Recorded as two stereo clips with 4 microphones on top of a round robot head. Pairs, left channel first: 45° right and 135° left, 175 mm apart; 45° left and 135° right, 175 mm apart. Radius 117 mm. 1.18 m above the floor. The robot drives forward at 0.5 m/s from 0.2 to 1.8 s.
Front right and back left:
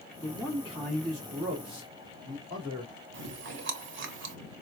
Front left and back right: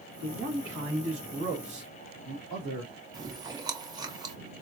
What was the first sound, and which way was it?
A man speaking, 125° right.